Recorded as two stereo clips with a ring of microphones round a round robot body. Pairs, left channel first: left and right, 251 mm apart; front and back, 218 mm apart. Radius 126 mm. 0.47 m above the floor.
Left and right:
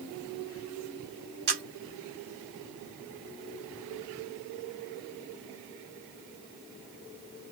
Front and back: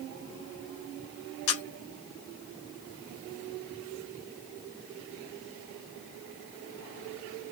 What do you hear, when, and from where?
1.5 s a camera shutter: 40° right, 1.2 m